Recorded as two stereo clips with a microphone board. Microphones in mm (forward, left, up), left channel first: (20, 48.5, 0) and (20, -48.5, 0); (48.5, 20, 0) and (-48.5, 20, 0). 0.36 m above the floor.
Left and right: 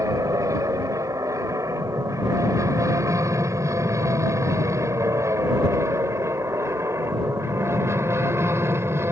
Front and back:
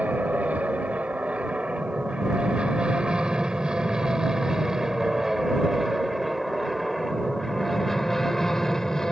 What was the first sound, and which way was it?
An aircraft, 115° right.